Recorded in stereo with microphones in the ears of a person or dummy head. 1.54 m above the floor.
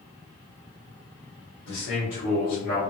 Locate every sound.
1.7 s a man speaking: 70° left (ahead or behind), 1.4 m; by 2.9 s 45° left (ahead or behind), 1.9 m